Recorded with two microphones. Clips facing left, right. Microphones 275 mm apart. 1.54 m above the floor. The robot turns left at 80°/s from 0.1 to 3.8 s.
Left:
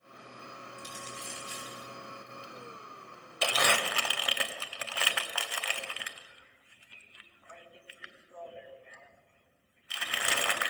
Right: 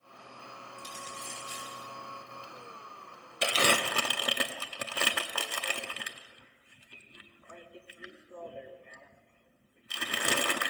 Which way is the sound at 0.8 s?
70° right (ahead or behind).